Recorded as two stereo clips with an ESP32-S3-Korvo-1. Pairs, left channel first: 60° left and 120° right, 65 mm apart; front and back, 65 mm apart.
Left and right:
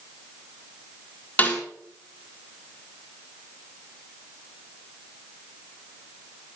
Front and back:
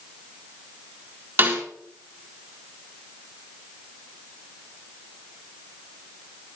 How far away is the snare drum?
About 6.5 m.